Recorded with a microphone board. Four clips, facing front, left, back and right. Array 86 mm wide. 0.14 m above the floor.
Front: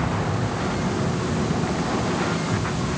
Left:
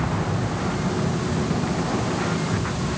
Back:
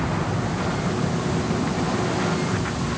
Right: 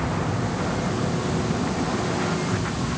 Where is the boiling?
I don't hear boiling.